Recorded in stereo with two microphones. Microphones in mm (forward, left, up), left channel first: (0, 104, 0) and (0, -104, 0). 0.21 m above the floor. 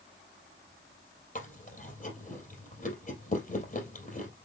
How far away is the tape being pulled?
I don't hear tape being pulled.